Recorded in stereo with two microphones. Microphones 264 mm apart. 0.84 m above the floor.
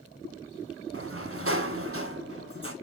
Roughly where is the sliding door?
Right.